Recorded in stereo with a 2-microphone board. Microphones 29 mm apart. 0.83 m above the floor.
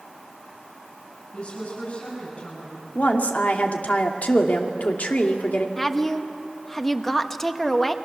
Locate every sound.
1.3 s a woman speaking: 40° left (ahead or behind), 7.5 m
3.0 s a woman speaking: 65° left (ahead or behind), 2 m
5.8 s a woman speaking: 10° left (ahead or behind), 1.1 m